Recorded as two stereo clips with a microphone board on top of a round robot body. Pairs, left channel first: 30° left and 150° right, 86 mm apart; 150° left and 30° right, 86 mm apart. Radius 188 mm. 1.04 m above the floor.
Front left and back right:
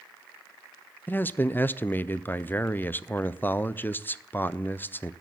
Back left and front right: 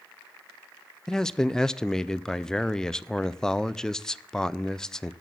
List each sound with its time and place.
1.1 s a man speaking: 75° left, 0.6 m